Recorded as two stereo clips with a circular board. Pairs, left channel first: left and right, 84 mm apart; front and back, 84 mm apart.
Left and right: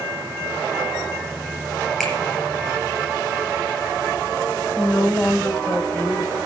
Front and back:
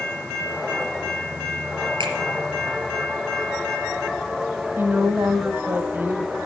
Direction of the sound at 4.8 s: 150° left.